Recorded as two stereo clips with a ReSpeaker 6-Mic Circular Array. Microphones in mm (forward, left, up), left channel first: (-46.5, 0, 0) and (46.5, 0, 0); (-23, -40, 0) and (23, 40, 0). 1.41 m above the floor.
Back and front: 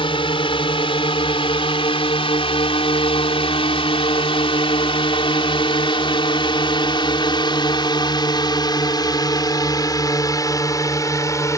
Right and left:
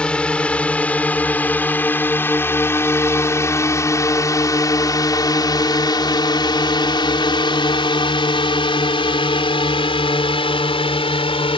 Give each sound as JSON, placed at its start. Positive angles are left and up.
{"t": 0.0, "sound": "a drone", "azimuth_deg": 160}